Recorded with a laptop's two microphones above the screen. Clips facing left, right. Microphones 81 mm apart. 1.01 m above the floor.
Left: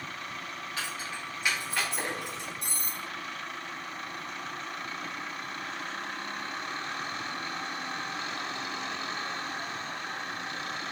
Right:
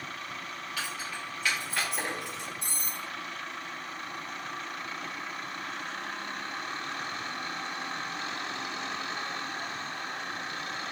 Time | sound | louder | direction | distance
0.8 | keys jangling | even | 40° left (ahead or behind) | 1.2 m
2.6 | cutlery clinking | even | 15° left (ahead or behind) | 1.7 m